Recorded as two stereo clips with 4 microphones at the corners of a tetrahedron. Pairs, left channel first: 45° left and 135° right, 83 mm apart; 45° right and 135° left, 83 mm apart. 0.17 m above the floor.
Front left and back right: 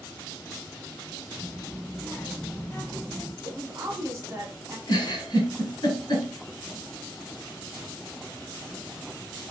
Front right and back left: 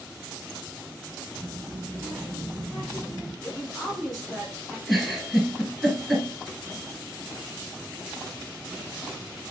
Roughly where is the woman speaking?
Behind right.